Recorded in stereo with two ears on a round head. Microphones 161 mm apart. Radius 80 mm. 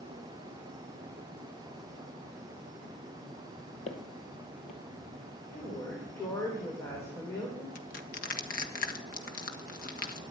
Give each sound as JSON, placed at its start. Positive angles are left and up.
{"t": 3.9, "sound": "footsteps", "side_deg": 40, "distance_m": 1.9}
{"t": 5.5, "sound": "a woman speaking", "side_deg": 15, "distance_m": 3.5}
{"t": 7.8, "sound": "crushing", "side_deg": 50, "distance_m": 1.4}